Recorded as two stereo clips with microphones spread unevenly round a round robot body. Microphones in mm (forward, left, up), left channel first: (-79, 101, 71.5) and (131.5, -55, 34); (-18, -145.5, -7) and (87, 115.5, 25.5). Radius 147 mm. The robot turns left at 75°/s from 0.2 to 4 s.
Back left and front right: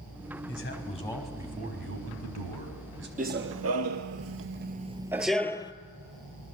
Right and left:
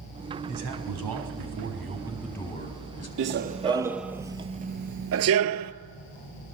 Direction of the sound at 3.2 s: 30° left.